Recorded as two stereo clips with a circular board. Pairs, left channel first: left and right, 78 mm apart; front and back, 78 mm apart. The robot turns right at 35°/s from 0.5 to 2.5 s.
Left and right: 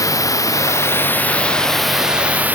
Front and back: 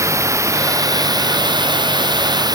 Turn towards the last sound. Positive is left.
turn(degrees=-155)